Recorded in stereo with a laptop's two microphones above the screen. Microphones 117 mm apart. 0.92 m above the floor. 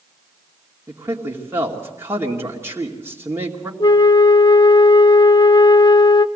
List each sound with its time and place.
0.9 s a man speaking: 20° right (ahead or behind), 2.5 m
3.8 s a flute: 45° left (ahead or behind), 0.7 m